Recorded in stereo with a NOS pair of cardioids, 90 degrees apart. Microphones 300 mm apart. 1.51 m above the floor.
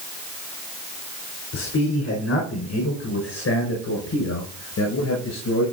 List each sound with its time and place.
1.5 s a man speaking: 55° left, 4.5 m; by 5.7 s 60° left, 6.5 m